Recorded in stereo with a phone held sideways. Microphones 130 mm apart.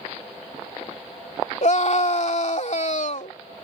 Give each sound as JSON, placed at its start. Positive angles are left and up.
{"t": 1.6, "sound": "a scream", "side_deg": 60}